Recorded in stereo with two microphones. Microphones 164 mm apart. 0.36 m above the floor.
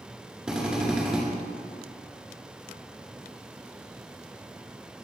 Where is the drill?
5° right (ahead or behind), 5.5 m.